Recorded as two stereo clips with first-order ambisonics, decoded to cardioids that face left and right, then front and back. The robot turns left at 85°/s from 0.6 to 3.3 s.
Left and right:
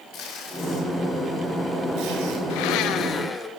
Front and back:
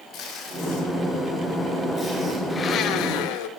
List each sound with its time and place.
0.1 s tape being pulled: 45° left, 3.5 m; by 2.4 s 105° right, 3.5 m
2.5 s a blender: 80° left, 1.1 m; by 3.5 s 10° left, 1.1 m